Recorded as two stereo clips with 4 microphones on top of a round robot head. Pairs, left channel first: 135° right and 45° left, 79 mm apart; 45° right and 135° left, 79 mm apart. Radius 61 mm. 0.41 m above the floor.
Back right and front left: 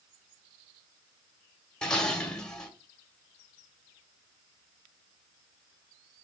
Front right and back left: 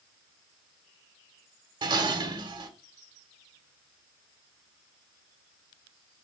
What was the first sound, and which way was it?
Dishes clattering, 145° left.